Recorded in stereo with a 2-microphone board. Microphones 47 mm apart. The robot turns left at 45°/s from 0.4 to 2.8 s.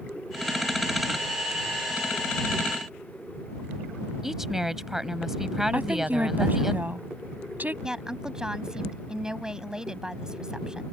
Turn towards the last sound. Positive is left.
turn(degrees=-15)  # may be behind; listen again after turning